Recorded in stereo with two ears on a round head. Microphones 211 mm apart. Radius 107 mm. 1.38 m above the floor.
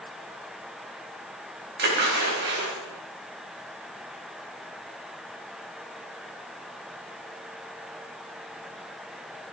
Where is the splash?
50° right (ahead or behind), 3.5 m.